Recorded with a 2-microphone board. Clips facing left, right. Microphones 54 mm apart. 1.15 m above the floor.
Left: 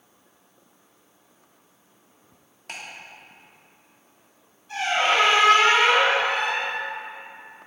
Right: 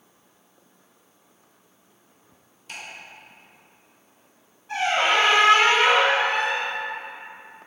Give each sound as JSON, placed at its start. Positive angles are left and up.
{"t": 2.7, "sound": "ticking", "side_deg": 60, "distance_m": 1.6}
{"t": 4.7, "sound": "a squeak", "side_deg": -40, "distance_m": 2.0}